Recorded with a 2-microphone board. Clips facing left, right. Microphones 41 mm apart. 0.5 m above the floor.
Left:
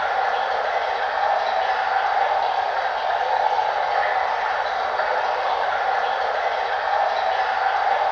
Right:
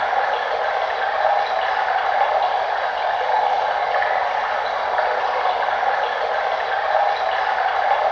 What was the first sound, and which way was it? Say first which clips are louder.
Running water: right 1 dB; 45° right (ahead or behind).